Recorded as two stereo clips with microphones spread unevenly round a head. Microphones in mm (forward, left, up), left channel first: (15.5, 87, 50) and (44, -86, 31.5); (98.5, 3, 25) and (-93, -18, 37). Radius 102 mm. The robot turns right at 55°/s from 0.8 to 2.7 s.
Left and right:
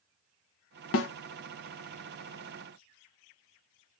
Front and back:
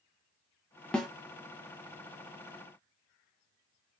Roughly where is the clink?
No clink in this recording.